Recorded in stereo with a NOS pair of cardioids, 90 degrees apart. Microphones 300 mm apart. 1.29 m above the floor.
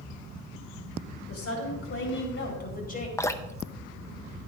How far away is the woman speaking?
About 5.5 m.